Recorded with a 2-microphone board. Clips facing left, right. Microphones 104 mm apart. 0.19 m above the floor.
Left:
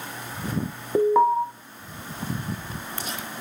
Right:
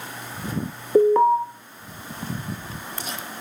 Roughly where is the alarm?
Centre.